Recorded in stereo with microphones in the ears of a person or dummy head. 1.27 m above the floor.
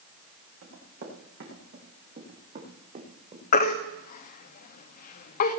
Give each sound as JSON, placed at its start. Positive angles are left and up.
{"t": 0.6, "sound": "running footsteps", "side_deg": -65, "distance_m": 6.5}
{"t": 3.5, "sound": "a baby crying", "side_deg": 50, "distance_m": 1.1}